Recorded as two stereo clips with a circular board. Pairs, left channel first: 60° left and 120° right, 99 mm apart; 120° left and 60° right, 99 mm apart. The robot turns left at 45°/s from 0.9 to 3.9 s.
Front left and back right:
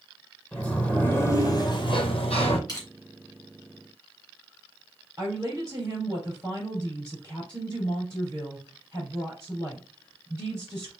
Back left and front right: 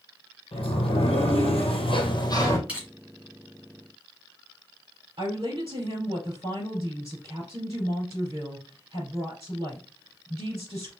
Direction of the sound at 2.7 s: 15° left.